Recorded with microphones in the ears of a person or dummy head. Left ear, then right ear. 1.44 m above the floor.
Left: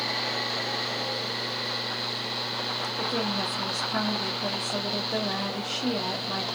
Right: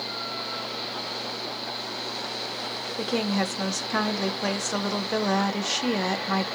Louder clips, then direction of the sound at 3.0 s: Right 4 dB; 60° right (ahead or behind).